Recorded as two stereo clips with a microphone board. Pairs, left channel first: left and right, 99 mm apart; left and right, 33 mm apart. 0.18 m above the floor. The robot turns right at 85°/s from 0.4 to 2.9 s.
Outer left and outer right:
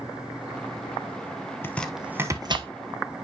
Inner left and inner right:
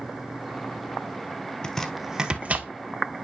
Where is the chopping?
25° left (ahead or behind), 1.0 m; by 2.7 s 65° right (ahead or behind), 1.0 m.